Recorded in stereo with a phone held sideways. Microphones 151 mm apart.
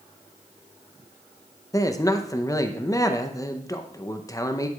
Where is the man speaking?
20° left (ahead or behind), 0.6 m.